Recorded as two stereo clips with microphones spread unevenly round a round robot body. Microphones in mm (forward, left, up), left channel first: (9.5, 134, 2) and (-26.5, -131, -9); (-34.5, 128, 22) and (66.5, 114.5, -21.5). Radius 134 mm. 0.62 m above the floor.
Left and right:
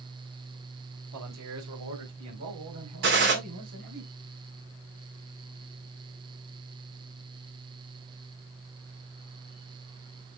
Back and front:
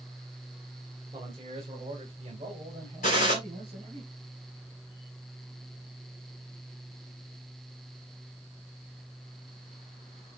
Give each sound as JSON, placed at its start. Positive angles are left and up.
{"t": 1.1, "sound": "a man speaking", "azimuth_deg": -70, "distance_m": 2.0}
{"t": 3.0, "sound": "a gunshot", "azimuth_deg": -140, "distance_m": 2.0}